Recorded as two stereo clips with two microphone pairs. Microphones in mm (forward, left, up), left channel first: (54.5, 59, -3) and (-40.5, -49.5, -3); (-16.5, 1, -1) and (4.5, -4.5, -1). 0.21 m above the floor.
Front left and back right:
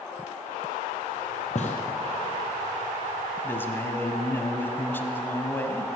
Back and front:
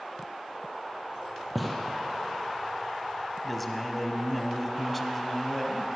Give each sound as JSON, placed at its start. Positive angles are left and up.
{"t": 1.6, "sound": "a gunshot", "azimuth_deg": 80, "distance_m": 1.9}
{"t": 3.4, "sound": "a man speaking", "azimuth_deg": 95, "distance_m": 1.0}